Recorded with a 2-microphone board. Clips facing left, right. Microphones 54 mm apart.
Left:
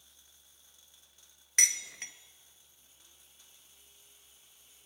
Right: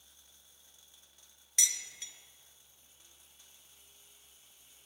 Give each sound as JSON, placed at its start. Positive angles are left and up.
{"t": 1.6, "sound": "dishes clattering", "side_deg": 50, "distance_m": 1.4}